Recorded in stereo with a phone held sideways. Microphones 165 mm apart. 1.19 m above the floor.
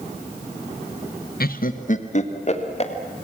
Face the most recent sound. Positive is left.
turn(degrees=40)  # may be behind; listen again after turning